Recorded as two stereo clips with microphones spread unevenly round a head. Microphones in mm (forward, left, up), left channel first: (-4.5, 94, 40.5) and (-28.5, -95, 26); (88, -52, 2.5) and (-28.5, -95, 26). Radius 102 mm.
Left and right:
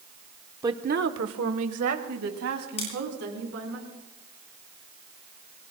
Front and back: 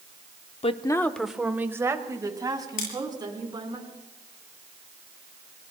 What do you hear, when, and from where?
0.6 s a woman speaking: 20° right, 0.8 m; by 3.8 s 105° right, 4.5 m
2.8 s scissors: 25° left, 8 m